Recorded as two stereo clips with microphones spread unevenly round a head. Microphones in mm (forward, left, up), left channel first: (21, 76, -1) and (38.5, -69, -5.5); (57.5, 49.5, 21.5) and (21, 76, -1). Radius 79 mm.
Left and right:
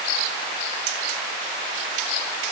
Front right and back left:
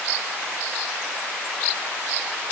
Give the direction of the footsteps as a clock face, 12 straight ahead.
No footsteps in this recording.